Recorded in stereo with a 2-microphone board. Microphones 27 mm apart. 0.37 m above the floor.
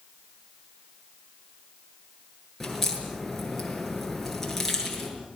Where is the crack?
5° left (ahead or behind), 7 m.